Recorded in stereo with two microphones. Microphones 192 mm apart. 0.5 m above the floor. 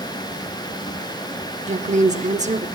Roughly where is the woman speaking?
Right.